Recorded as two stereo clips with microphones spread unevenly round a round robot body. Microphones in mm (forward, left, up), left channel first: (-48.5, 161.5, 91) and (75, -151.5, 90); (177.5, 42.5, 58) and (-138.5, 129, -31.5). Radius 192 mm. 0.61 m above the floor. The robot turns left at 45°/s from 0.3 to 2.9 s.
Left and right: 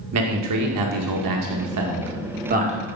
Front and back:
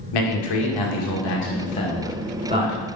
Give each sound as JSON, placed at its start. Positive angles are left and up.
{"t": 0.1, "sound": "a man speaking", "azimuth_deg": -30, "distance_m": 1.9}